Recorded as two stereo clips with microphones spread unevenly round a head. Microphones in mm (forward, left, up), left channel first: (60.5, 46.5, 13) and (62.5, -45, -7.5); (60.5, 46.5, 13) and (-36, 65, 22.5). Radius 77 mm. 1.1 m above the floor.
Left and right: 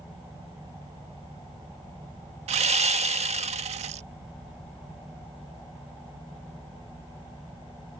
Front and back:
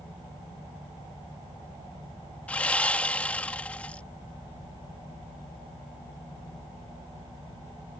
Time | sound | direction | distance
2.5 | sawing | 95° right | ?